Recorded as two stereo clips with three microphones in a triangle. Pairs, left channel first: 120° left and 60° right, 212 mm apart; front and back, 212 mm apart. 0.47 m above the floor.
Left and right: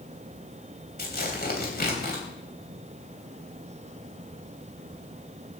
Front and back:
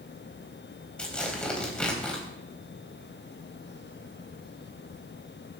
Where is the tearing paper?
85° left, 3.5 m.